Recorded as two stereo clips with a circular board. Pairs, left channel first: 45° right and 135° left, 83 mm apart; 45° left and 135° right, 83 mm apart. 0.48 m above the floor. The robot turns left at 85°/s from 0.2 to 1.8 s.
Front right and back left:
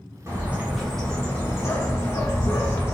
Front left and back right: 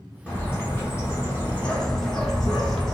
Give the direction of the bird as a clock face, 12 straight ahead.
9 o'clock.